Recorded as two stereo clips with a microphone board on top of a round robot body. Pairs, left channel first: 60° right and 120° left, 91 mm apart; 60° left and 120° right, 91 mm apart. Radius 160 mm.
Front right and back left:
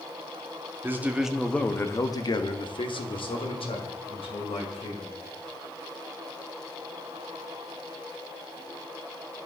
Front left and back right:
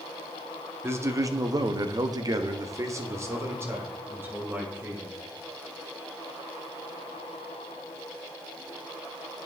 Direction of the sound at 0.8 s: Straight behind.